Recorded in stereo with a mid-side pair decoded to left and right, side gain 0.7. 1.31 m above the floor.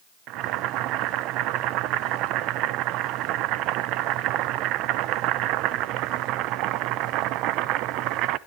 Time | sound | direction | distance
0.3 | boiling | 60° right | 0.8 m